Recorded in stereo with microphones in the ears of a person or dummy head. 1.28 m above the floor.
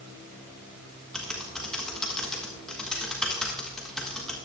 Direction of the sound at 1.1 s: Centre (ahead or behind).